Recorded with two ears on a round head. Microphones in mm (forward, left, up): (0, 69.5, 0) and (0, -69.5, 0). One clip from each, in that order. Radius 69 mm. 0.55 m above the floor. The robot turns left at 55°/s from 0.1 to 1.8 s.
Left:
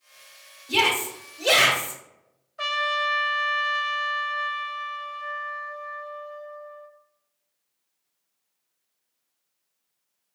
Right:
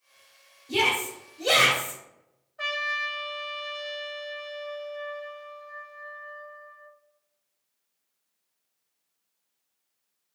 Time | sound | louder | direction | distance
0.7 | a shout | left 3 dB | 95° left | 1.8 m
2.6 | a trumpet | left 4 dB | 45° left (ahead or behind) | 0.6 m